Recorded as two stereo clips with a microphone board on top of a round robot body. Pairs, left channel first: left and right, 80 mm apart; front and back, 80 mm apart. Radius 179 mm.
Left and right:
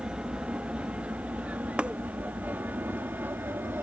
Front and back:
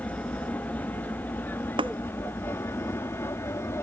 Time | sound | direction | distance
0.0 | an aircraft | 30° right | ?
1.8 | tapping | 165° right | ?